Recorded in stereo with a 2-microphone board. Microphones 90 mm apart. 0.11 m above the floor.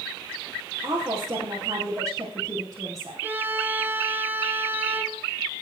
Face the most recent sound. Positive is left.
turn(degrees=-20)  # may be behind; listen again after turning